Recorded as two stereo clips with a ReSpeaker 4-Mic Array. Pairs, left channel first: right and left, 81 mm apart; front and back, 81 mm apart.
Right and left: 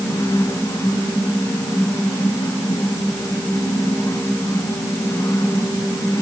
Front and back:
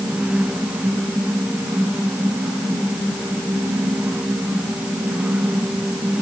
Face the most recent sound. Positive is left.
No sound to turn to.